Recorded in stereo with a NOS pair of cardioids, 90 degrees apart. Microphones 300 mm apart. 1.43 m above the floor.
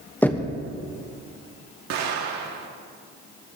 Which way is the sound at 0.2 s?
5° left.